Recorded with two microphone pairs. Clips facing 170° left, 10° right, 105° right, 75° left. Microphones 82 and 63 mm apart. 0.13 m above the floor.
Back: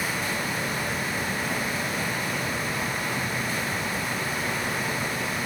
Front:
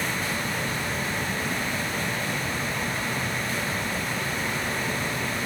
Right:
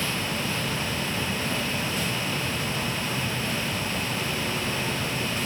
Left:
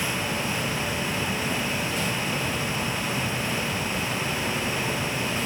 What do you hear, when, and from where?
Only background noise.